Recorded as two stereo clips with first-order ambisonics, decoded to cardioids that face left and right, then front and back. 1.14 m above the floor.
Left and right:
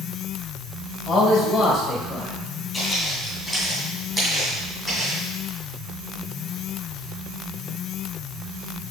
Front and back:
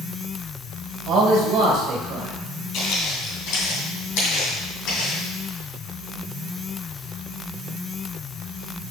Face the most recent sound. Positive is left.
turn(degrees=-15)